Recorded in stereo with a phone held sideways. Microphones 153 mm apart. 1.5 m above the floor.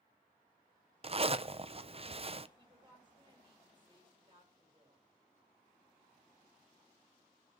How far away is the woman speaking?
About 6.5 m.